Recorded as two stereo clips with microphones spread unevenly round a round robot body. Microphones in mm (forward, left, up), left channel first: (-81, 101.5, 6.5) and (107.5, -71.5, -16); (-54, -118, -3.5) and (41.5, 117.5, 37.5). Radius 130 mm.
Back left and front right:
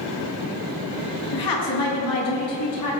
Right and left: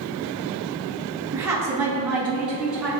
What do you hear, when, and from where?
1.3 s a woman speaking: 150° left, 5.5 m; by 2.9 s 155° left, 7 m